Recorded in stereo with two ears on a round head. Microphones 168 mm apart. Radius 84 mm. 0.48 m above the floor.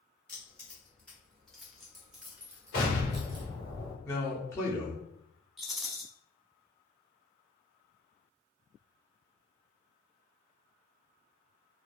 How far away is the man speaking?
About 0.7 m.